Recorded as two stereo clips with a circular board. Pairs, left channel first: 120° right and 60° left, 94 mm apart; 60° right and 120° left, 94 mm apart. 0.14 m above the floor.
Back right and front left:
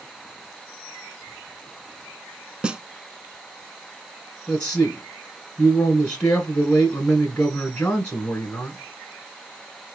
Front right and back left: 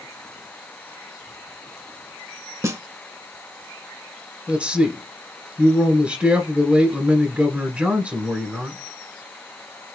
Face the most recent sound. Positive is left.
turn(degrees=175)